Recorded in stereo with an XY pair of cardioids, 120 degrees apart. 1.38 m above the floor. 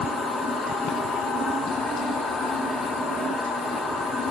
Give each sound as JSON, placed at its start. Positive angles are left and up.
{"t": 0.0, "sound": "a machine running", "azimuth_deg": 50, "distance_m": 1.3}